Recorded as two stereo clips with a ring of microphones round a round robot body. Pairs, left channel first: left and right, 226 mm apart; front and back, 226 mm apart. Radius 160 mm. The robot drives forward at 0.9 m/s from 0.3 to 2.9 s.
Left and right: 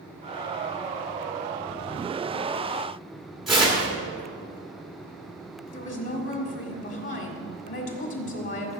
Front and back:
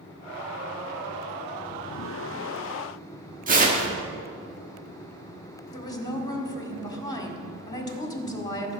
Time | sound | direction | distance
3.5 | tearing paper | straight behind | 1.4 m
5.7 | a woman speaking | 70° left | 2.0 m